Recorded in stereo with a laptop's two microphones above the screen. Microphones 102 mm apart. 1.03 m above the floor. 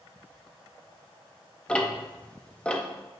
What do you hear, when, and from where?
1.7 s ticking: 10° left (ahead or behind), 0.6 m